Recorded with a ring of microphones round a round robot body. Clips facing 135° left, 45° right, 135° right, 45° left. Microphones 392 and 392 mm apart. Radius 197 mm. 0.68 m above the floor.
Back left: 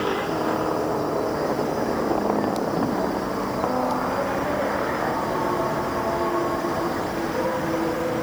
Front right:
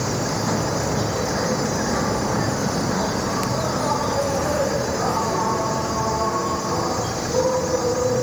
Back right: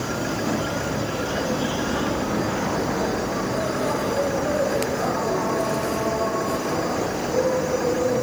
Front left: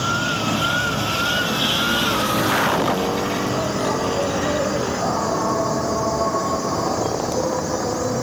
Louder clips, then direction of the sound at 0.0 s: Back left 1 dB, even; 20° right.